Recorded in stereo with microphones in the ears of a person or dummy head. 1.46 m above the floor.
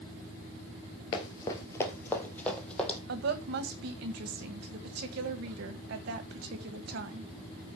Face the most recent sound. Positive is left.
turn(degrees=-65)  # may be behind; listen again after turning